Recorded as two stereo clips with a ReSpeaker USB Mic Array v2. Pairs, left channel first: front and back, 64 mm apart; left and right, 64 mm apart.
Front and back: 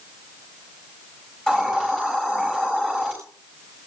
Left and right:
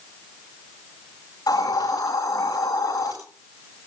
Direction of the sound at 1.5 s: 80° left.